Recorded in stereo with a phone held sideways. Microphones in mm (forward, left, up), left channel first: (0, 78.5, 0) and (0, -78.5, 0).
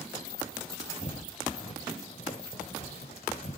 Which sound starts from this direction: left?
Footsteps, at 1.0 s.